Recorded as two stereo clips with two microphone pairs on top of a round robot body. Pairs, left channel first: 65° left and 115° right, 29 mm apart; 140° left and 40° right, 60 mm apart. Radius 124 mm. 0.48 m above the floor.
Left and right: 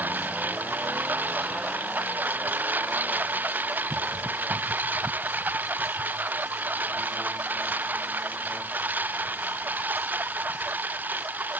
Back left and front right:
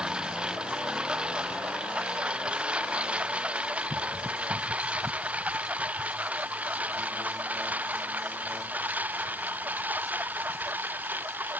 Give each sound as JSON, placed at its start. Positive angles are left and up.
{"t": 0.0, "sound": "a lawn mower", "azimuth_deg": -115}